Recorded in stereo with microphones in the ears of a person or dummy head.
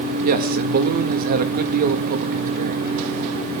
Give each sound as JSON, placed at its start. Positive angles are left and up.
{"t": 0.2, "sound": "a man speaking", "side_deg": -50, "distance_m": 1.9}